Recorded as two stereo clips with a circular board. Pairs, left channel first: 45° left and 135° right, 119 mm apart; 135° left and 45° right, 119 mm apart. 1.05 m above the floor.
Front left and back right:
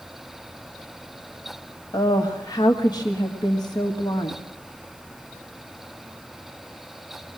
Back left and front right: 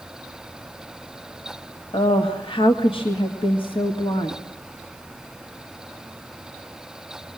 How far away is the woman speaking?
About 1.9 m.